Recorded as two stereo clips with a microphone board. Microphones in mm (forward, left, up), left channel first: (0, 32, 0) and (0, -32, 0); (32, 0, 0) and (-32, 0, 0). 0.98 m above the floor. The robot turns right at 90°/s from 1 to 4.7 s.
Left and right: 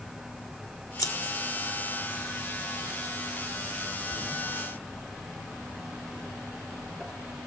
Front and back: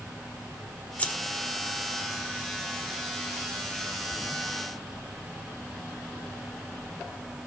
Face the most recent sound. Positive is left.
turn(degrees=40)